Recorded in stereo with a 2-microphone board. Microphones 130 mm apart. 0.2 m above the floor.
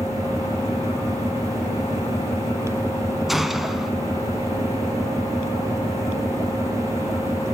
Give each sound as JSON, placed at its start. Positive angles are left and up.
{"t": 0.0, "sound": "an engine running", "side_deg": 25, "distance_m": 7.0}
{"t": 3.3, "sound": "a gunshot", "side_deg": 0, "distance_m": 1.1}